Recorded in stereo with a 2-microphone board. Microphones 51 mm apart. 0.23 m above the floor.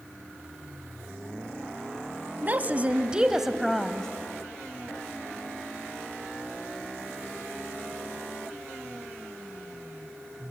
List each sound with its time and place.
2.4 s a woman speaking: 40° right (ahead or behind), 1.2 m; by 4.1 s 10° left (ahead or behind), 1.1 m